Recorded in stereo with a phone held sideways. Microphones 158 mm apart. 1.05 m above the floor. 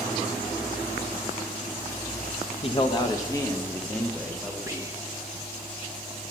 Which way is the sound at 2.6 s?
40° left (ahead or behind).